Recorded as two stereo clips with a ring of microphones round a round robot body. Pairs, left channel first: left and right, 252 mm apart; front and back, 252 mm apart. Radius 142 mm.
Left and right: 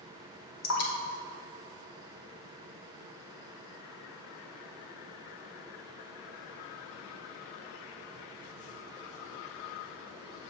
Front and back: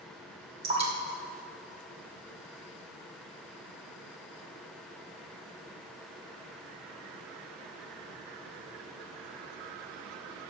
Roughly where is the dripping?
Behind left.